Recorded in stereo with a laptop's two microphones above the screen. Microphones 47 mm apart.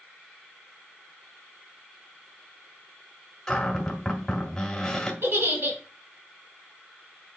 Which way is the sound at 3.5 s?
15° left (ahead or behind).